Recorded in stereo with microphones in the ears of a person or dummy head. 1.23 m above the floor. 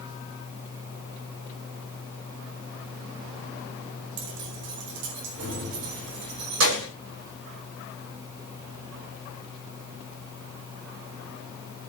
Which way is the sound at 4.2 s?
60° right (ahead or behind).